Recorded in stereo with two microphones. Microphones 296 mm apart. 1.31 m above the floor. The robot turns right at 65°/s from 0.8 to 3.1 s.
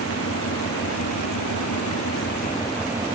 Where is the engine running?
45° left; by 3.1 s 165° right.